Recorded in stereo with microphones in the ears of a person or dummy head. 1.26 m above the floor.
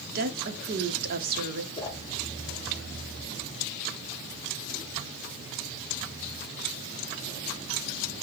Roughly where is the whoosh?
Left.